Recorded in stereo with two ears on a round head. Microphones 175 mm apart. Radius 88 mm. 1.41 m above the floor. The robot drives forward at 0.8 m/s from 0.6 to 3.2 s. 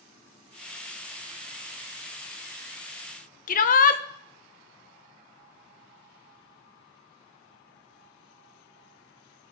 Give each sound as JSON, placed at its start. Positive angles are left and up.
{"t": 3.5, "sound": "a shout", "side_deg": 45, "distance_m": 1.1}